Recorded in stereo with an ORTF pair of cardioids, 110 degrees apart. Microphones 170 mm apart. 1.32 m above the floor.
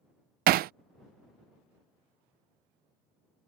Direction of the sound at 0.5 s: 65° right.